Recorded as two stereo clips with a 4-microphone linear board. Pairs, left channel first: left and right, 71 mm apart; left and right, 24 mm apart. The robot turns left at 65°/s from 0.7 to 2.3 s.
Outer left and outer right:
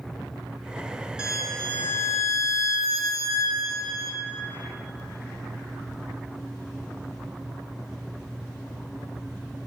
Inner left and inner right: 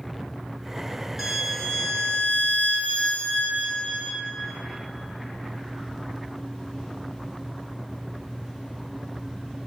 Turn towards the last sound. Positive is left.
turn(degrees=120)